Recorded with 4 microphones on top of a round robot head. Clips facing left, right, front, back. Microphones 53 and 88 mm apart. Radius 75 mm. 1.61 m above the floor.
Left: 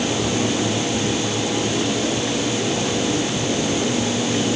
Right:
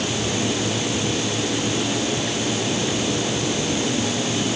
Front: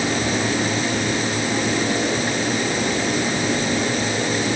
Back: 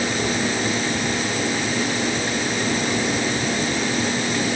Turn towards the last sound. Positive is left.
No sound to turn to.